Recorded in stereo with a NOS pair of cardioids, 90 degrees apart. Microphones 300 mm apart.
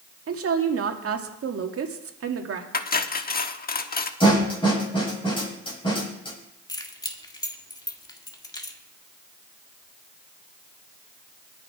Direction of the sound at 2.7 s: 30° left.